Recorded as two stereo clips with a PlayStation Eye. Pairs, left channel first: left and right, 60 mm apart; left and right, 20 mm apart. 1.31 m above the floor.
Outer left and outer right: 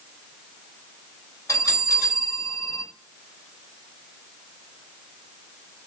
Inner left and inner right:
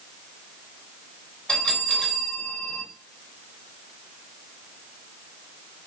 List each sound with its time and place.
1.5 s a bell: 60° left (ahead or behind), 1.5 m